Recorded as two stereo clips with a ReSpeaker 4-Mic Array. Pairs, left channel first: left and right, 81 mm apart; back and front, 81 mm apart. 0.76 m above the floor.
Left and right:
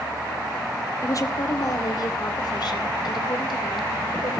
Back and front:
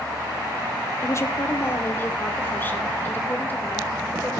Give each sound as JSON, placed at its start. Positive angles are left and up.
{"t": 1.0, "sound": "a woman speaking", "azimuth_deg": 130, "distance_m": 1.9}